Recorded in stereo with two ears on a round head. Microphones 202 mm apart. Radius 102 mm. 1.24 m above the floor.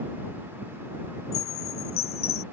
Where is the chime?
40° left (ahead or behind).